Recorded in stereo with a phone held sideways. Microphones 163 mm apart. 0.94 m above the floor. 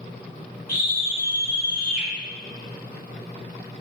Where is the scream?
55° left (ahead or behind), 1.2 m.